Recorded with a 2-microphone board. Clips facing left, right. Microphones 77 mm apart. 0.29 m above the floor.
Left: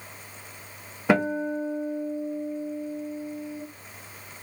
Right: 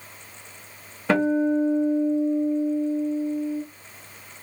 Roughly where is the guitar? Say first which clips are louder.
Right 3 dB; centre.